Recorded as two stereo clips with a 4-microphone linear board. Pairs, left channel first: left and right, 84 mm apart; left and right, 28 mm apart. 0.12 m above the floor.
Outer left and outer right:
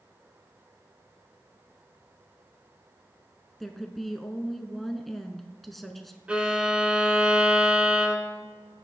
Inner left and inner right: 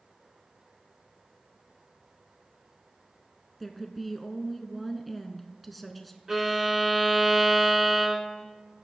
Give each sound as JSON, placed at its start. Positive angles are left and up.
{"t": 3.6, "sound": "a woman speaking", "side_deg": 0, "distance_m": 1.1}
{"t": 6.3, "sound": "a violin", "side_deg": -15, "distance_m": 1.6}